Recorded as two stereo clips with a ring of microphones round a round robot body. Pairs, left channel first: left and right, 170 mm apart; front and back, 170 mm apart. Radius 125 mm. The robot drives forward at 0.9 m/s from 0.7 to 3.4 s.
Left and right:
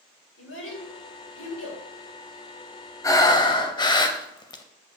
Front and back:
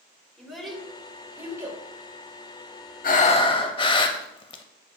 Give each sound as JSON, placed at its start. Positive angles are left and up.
{"t": 0.4, "sound": "a child speaking", "azimuth_deg": 90, "distance_m": 3.0}
{"t": 3.0, "sound": "breathing", "azimuth_deg": 20, "distance_m": 0.8}